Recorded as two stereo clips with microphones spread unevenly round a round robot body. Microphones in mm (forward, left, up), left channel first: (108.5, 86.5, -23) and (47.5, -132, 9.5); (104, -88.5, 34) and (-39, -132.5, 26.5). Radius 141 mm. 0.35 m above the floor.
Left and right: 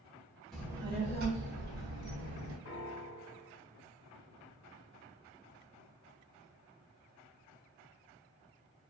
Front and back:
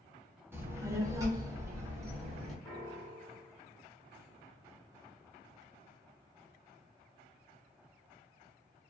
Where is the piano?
90° left, 1.1 m.